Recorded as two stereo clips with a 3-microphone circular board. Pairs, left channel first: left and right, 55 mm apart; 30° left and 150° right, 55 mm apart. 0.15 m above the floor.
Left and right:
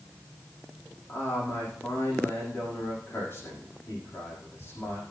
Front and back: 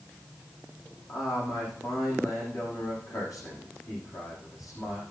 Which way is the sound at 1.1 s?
40° left.